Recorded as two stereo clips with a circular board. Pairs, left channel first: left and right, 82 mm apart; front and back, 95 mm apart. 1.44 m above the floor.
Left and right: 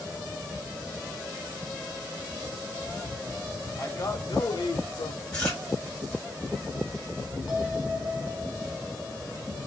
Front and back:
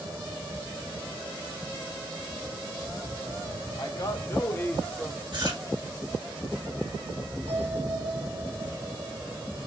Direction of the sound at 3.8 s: 40° left.